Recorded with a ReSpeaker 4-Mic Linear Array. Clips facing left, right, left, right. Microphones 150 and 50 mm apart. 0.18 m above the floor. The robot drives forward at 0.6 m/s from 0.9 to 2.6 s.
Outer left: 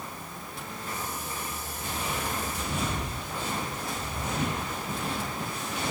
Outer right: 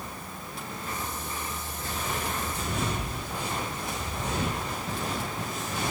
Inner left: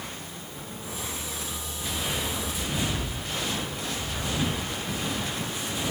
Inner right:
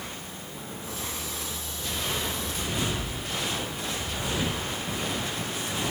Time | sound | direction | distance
1.8 | footsteps | 15° left (ahead or behind) | 4 m